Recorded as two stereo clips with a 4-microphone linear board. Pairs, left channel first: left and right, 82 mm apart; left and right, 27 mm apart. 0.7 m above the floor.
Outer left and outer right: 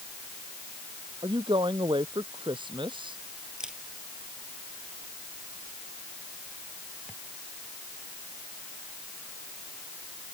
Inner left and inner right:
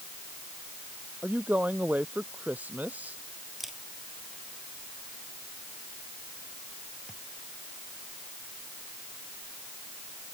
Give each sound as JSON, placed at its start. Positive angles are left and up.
{"t": 1.2, "sound": "a woman speaking", "side_deg": -80}
{"t": 3.6, "sound": "a camera shutter", "side_deg": -10}